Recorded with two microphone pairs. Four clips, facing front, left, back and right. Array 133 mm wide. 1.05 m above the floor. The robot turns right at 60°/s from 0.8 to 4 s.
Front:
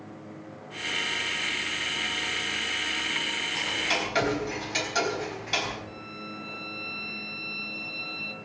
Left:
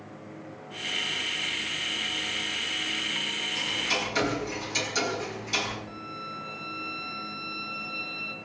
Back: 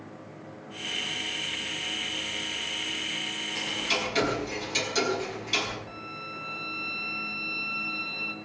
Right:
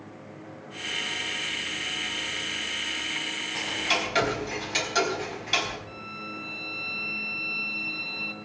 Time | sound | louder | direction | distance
3.5 | ticking | right 3 dB, front 1 dB | 75° right | 3.5 m
5.9 | a violin | left 1 dB, even | 110° right | 2 m